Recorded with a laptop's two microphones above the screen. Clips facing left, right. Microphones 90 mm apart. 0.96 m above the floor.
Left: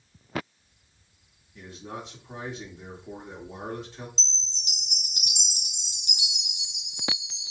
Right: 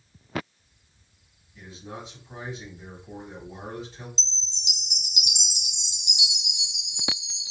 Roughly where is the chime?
Left.